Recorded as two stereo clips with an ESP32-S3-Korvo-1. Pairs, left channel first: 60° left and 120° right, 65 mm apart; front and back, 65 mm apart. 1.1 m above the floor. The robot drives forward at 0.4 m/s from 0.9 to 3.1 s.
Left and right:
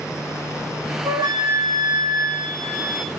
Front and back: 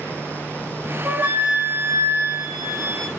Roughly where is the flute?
Behind right.